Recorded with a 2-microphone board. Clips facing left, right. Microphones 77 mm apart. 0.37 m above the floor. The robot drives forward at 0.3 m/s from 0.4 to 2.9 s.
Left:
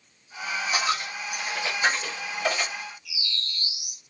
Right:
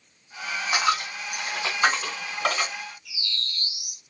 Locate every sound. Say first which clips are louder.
0.7 s a dropped coin: right 5 dB; 80° right, 1.3 m; by 2.7 s 60° right (ahead or behind), 1.5 m
3.0 s a bird: even; 50° right (ahead or behind), 1.2 m